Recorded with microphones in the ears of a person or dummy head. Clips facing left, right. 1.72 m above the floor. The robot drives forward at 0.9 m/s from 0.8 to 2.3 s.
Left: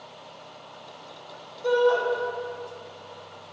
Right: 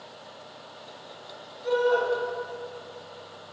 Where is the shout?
85° left, 1.8 m; by 2.0 s 75° left (ahead or behind), 1.9 m.